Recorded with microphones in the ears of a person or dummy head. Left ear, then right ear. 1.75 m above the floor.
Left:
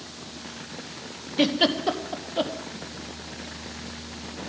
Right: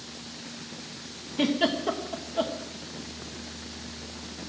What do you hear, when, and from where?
1.4 s a giggle: 35° left (ahead or behind), 1.3 m